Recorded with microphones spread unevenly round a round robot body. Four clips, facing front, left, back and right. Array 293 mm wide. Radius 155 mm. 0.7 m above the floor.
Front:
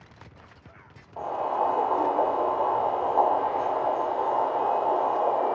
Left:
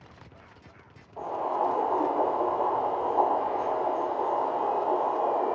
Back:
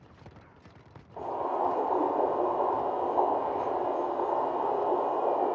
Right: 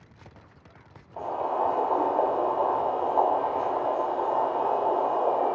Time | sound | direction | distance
1.2 | boiling | 45° right | 1.1 m